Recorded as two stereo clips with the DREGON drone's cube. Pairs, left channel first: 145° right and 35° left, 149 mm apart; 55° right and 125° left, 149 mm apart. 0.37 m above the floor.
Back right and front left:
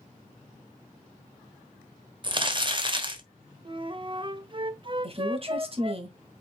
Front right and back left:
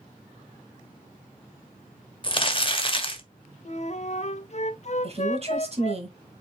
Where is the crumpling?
10° right, 1.2 m.